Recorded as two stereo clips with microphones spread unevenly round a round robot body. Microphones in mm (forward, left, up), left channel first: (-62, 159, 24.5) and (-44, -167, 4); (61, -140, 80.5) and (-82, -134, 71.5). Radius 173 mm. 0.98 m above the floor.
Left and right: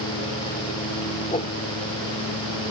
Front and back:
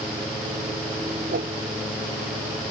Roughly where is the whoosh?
Behind.